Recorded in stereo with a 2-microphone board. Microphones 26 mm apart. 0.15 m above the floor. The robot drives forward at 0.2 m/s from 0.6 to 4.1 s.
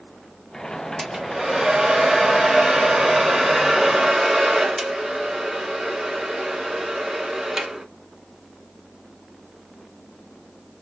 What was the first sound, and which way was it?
A hair dryer, 20° right (ahead or behind).